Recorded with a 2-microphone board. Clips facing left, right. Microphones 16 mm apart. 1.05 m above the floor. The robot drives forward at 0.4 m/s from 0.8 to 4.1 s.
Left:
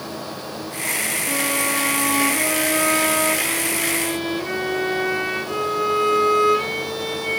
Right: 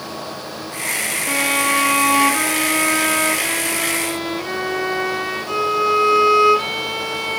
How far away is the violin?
About 0.6 m.